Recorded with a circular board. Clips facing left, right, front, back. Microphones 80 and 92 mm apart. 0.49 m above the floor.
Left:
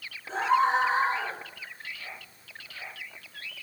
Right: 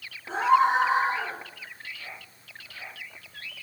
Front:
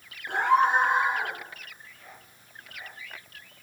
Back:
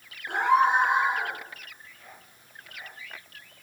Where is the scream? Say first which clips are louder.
Right 3 dB, even; 100° right, 5.5 m.